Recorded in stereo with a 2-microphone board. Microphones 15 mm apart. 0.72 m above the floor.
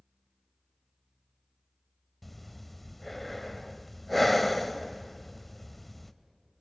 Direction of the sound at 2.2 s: 5° left (ahead or behind).